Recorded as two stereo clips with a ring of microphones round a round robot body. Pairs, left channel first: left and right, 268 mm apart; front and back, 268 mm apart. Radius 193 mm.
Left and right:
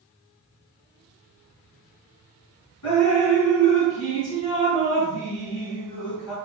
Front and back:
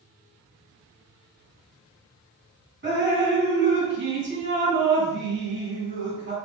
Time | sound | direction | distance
2.8 | dripping | 135° left | 3.5 m